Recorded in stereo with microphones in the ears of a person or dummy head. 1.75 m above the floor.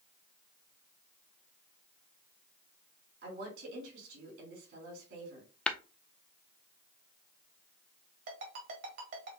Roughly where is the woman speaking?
Right.